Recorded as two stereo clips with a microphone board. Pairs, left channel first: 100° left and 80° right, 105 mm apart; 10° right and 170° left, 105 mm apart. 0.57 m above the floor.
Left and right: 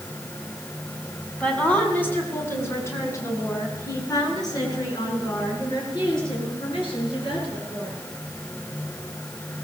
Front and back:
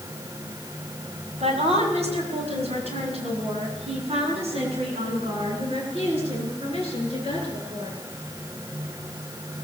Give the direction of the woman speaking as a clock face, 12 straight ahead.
6 o'clock.